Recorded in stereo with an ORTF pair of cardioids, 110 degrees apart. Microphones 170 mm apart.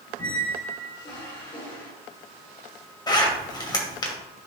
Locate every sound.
0.2 s a squeak: 30° left, 3 m
3.1 s a zipper: 25° left, 2.5 m